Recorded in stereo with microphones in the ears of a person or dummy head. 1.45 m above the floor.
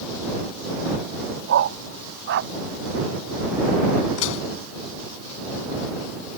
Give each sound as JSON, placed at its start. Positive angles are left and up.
{"t": 1.5, "sound": "a dog barking", "side_deg": -70}
{"t": 4.2, "sound": "dishes clattering", "side_deg": 75}